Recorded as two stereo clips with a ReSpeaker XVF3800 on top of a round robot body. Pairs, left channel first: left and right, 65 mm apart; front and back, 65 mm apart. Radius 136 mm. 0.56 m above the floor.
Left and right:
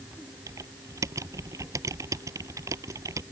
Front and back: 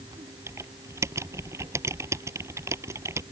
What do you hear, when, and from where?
0.5 s typing on a keyboard: 135° right